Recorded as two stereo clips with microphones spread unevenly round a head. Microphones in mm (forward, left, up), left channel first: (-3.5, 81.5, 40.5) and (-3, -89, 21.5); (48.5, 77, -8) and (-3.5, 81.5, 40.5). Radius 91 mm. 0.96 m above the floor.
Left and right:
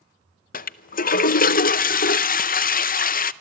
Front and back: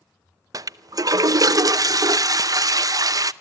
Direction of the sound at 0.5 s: 125° left.